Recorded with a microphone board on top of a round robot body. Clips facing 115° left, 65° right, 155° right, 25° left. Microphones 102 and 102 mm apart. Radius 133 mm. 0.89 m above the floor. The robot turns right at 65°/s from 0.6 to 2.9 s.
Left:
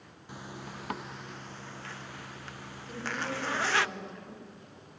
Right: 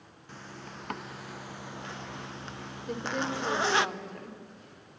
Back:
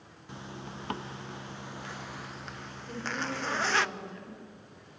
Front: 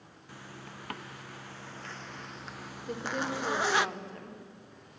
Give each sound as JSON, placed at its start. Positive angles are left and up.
{"t": 0.3, "sound": "a zipper", "azimuth_deg": 175, "distance_m": 0.6}
{"t": 2.9, "sound": "a woman speaking", "azimuth_deg": -30, "distance_m": 2.5}